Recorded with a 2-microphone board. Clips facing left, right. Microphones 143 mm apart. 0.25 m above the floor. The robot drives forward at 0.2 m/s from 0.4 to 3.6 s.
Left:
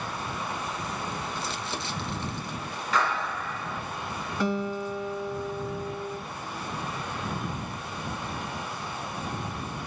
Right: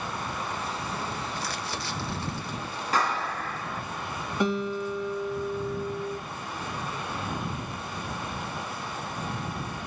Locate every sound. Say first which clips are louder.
1.4 s crumpling: even; 25° left (ahead or behind), 1.1 m; by 2.8 s 20° left (ahead or behind), 1.3 m
2.9 s a clap: even; 35° right (ahead or behind), 2 m
4.4 s a guitar: right 1 dB; 20° right (ahead or behind), 2 m